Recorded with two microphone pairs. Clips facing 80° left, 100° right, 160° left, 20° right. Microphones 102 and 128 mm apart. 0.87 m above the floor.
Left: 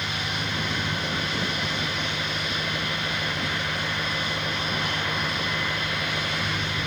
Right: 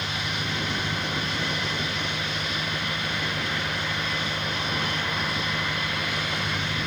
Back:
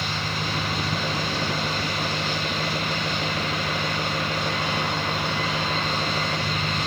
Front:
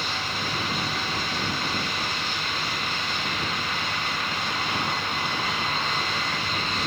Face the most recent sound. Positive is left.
turn(degrees=160)